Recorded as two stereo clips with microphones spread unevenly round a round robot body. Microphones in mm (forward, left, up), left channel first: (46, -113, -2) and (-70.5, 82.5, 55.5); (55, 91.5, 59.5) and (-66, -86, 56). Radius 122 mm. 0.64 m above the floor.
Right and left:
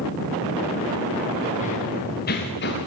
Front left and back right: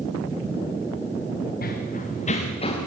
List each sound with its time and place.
1.6 s running footsteps: 5° left, 4 m; by 2.9 s 15° right, 4 m